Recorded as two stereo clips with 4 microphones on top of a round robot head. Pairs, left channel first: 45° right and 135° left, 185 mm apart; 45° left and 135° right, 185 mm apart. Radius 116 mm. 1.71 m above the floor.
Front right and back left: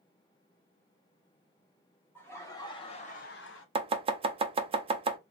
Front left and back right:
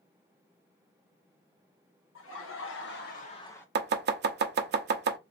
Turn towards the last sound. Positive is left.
turn(degrees=-165)